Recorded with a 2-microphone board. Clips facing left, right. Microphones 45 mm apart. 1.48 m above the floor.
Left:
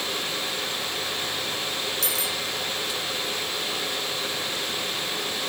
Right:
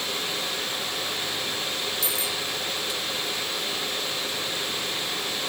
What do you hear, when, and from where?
2.0 s a bicycle bell: 65° left (ahead or behind)